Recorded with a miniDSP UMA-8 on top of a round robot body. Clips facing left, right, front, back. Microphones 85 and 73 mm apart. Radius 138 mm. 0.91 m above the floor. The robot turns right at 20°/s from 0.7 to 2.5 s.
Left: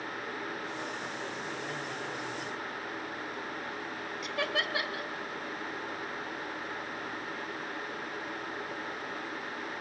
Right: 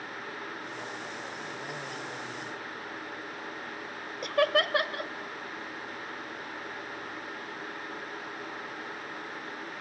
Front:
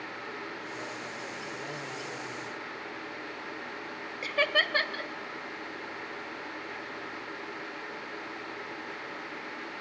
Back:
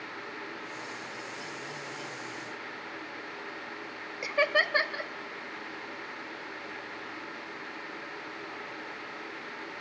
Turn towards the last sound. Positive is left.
turn(degrees=-105)